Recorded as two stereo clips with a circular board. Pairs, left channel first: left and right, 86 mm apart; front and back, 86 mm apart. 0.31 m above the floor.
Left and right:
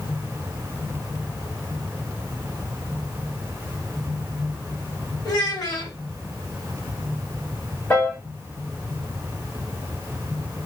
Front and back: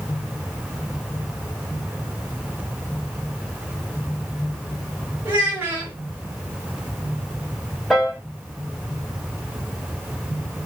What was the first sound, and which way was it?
A child speaking, 120° left.